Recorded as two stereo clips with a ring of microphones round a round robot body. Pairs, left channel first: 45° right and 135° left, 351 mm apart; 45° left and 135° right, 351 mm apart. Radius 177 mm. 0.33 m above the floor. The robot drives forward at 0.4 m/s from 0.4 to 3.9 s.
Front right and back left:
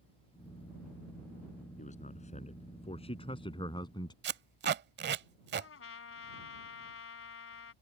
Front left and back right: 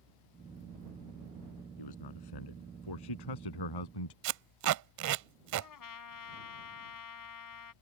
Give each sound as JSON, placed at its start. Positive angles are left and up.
{"t": 1.8, "sound": "a man speaking", "azimuth_deg": 25}
{"t": 4.2, "sound": "tape being pulled", "azimuth_deg": -170}
{"t": 5.6, "sound": "a trumpet", "azimuth_deg": 10}